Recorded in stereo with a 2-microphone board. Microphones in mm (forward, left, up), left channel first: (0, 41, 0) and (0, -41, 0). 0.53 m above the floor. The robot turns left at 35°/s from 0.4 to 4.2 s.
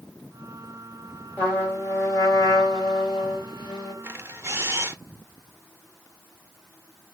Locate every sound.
1.4 s a trumpet: 155° left, 2.5 m; by 3.9 s 65° left, 2.5 m
4.0 s a camera shutter: 30° right (ahead or behind), 0.7 m; by 5.0 s 35° right (ahead or behind), 0.7 m